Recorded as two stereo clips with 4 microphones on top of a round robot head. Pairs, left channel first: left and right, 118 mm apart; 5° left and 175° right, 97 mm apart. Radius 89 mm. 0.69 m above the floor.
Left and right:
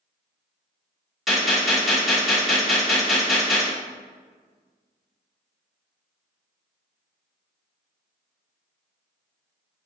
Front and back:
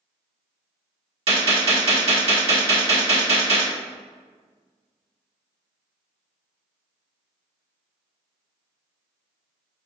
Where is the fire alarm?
I don't hear a fire alarm.